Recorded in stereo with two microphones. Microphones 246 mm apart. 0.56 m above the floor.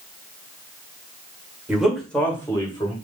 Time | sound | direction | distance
1.7 | a man speaking | 5° right (ahead or behind) | 1.7 m